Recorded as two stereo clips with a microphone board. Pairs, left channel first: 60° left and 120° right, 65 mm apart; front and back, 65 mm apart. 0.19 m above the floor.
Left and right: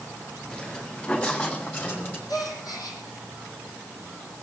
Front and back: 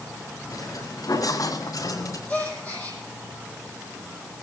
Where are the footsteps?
15° right, 7 m; by 2.2 s 5° left, 7.5 m.